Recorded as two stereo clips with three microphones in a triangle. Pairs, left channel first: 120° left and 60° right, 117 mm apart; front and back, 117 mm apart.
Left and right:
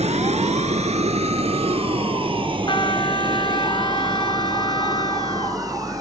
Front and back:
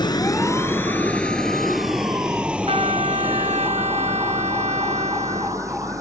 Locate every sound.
0.0 s a vehicle: 50° right; by 6.0 s 120° right
2.7 s a trumpet: 160° left